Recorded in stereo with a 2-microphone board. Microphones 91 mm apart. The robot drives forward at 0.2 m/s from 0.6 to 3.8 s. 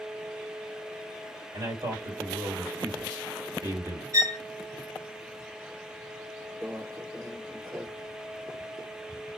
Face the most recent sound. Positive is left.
turn(degrees=-40)  # may be behind; listen again after turning